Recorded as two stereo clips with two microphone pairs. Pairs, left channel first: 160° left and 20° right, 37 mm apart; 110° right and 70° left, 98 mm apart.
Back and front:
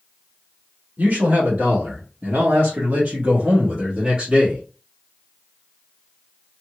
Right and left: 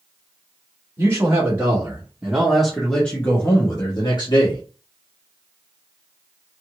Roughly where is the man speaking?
Ahead.